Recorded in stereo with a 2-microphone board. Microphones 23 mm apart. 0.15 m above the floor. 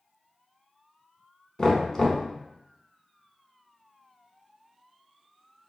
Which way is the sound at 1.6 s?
20° left (ahead or behind).